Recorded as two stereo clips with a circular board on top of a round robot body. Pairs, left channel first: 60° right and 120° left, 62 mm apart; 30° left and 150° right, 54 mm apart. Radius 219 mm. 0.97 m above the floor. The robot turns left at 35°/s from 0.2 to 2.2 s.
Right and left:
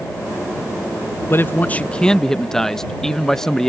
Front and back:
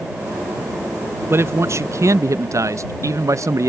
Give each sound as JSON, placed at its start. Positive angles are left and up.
{"t": 1.3, "sound": "a man speaking", "azimuth_deg": -110}